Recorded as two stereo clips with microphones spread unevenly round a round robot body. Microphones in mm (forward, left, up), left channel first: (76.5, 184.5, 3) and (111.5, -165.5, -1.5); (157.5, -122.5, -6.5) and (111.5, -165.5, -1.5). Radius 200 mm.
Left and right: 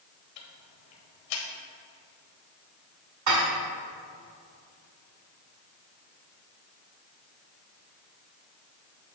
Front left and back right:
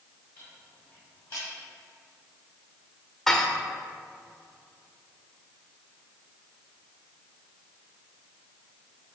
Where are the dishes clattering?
40° right, 1.5 m.